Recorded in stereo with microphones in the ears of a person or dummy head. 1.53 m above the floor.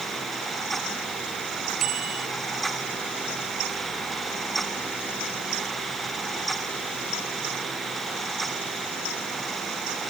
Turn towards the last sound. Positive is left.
turn(degrees=-45)  # may be behind; listen again after turning